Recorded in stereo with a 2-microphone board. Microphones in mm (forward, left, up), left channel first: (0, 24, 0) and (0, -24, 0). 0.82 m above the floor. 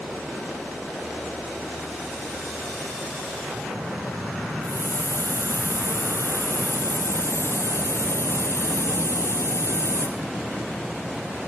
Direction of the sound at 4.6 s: 60° left (ahead or behind).